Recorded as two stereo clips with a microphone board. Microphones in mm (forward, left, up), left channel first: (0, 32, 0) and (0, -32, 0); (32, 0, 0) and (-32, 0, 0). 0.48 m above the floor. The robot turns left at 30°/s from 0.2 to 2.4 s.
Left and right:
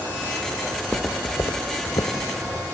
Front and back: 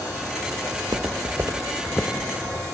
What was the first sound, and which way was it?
Footsteps, 175° left.